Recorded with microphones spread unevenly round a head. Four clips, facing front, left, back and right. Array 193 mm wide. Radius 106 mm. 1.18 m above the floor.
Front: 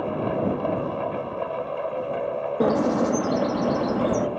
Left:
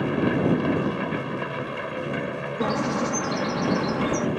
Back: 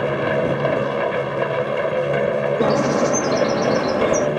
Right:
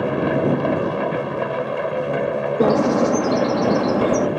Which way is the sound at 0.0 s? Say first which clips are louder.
Right 4 dB, back 5 dB; 170° right.